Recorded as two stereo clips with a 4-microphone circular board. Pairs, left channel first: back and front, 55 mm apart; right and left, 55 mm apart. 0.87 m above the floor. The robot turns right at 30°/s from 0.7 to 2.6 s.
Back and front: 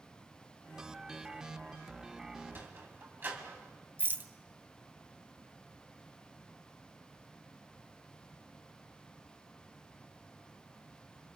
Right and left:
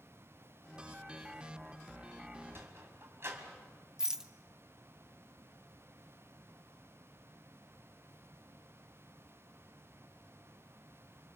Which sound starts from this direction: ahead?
A rattle, at 4.0 s.